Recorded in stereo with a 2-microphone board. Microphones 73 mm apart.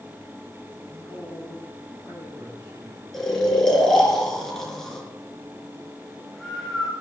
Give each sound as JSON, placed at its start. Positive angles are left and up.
{"t": 0.9, "sound": "a man speaking", "side_deg": -25, "distance_m": 6.5}
{"t": 3.1, "sound": "snoring", "side_deg": 5, "distance_m": 4.5}